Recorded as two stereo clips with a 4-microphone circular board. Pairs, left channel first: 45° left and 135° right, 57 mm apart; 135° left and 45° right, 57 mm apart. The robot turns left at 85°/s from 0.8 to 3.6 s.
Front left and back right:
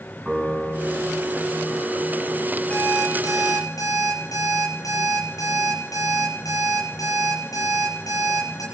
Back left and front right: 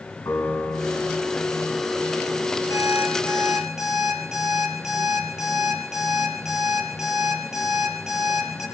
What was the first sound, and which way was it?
A piano, 145° left.